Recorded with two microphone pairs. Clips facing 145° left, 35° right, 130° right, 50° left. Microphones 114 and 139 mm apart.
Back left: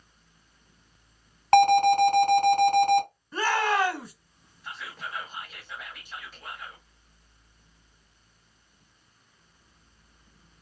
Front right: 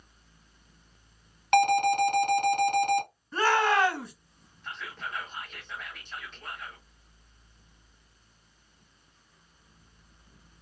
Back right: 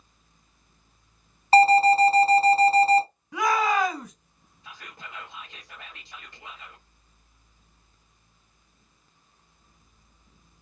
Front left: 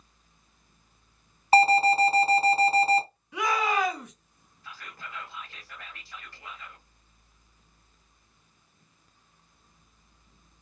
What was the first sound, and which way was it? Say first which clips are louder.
An alarm: back left 5 dB, back right 4 dB; 125° left.